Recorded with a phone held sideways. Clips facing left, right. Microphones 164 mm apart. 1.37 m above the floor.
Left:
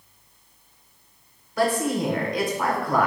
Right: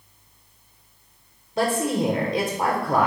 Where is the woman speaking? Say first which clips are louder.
Even; 25° right (ahead or behind), 1.2 m.